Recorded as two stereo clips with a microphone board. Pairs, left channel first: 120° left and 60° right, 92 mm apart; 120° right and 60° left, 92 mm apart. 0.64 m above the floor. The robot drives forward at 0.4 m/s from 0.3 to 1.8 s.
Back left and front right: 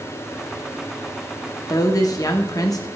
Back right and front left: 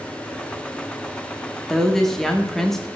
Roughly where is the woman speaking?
Behind left.